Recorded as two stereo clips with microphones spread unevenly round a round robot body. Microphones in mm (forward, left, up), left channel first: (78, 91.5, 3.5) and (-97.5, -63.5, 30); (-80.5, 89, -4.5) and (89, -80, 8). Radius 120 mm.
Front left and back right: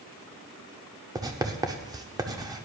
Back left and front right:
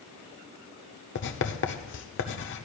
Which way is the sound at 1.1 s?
145° left.